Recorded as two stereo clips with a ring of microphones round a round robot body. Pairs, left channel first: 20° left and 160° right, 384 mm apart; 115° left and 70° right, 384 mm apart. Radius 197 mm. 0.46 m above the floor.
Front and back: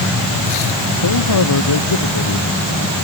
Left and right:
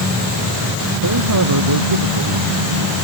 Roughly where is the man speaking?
Ahead.